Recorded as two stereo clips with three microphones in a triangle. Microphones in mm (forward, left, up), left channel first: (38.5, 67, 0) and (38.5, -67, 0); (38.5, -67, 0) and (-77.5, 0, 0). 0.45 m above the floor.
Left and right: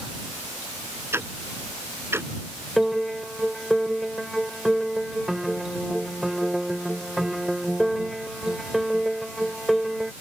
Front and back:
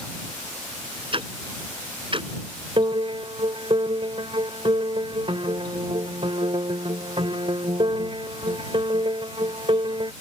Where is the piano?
Straight behind.